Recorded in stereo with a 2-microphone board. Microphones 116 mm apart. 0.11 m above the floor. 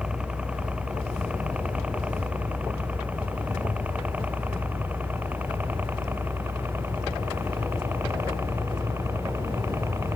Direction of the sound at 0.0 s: 10° right (ahead or behind).